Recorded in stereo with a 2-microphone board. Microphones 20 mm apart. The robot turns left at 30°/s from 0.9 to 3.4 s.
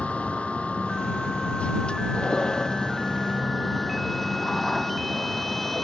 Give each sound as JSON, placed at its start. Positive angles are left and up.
{"t": 0.0, "sound": "a vehicle", "azimuth_deg": 85}